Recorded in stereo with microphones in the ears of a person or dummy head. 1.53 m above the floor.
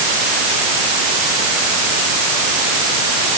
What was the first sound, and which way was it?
Only background noise.